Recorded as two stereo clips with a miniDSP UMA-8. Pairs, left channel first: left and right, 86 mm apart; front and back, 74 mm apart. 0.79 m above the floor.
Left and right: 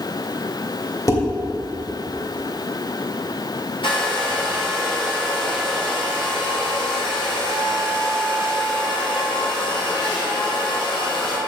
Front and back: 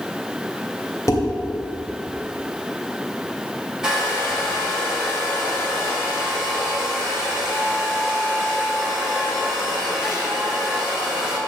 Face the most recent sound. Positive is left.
turn(degrees=100)